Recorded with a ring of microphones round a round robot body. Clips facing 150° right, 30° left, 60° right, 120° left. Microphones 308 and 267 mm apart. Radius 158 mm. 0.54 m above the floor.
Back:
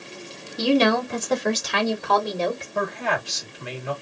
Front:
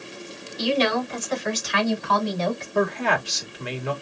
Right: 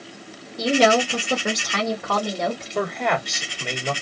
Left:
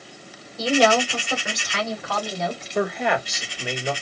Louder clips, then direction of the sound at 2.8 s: Front 4 dB, left 3 dB; 35° left.